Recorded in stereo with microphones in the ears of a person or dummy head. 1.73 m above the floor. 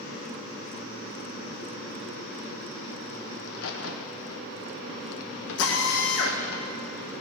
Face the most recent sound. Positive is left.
turn(degrees=70)  # may be behind; listen again after turning